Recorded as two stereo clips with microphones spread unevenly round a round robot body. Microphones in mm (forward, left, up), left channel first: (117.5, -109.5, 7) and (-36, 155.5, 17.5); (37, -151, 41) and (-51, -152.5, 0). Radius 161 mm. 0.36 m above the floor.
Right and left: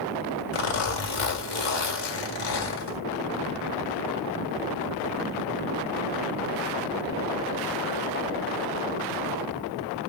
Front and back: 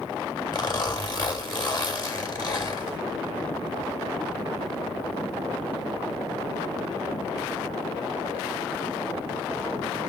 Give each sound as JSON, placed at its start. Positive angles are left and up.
{"t": 0.5, "sound": "a zipper", "azimuth_deg": -55, "distance_m": 2.0}